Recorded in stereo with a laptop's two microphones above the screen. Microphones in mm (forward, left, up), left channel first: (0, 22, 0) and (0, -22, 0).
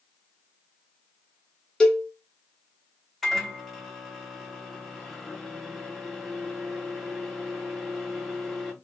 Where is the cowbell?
15° left (ahead or behind), 0.7 m.